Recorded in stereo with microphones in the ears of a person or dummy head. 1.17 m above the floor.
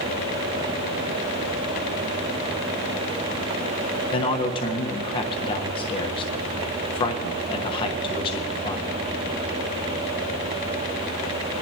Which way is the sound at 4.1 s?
30° left (ahead or behind).